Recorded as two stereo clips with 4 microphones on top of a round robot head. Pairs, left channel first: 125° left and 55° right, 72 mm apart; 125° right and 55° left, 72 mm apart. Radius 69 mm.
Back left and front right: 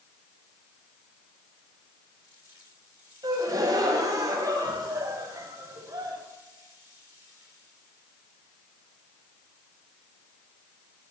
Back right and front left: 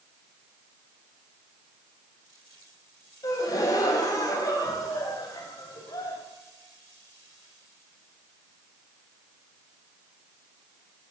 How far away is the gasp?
About 3 m.